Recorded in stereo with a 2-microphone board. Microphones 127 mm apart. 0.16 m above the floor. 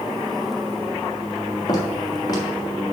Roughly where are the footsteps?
Left.